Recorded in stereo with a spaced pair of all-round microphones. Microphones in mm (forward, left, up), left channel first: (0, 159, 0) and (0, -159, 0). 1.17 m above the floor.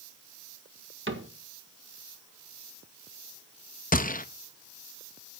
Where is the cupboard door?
40° right (ahead or behind), 1.6 m.